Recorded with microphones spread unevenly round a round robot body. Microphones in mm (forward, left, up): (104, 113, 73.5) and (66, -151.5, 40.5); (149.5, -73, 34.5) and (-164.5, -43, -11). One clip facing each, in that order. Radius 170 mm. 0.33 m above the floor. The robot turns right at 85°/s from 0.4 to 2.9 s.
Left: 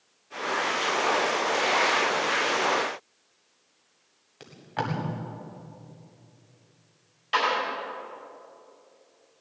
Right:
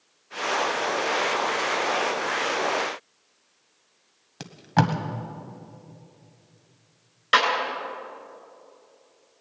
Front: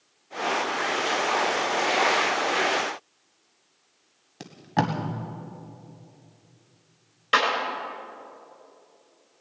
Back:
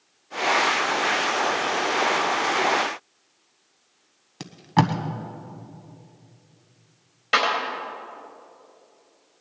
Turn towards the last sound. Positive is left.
turn(degrees=-95)